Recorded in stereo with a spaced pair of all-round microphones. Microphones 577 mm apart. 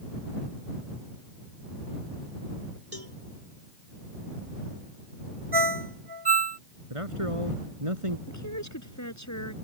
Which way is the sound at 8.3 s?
30° left (ahead or behind).